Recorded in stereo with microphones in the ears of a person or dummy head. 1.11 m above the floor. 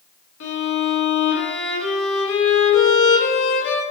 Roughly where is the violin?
Left.